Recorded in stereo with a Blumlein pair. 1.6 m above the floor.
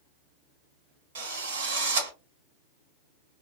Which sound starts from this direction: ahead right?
A drill, at 1.1 s.